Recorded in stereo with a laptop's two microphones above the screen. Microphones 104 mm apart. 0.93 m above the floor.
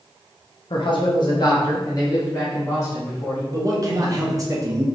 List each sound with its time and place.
0.7 s a man speaking: 55° left (ahead or behind), 0.9 m; by 3.4 s 25° left (ahead or behind), 2 m
3.5 s a man speaking: 35° right (ahead or behind), 0.9 m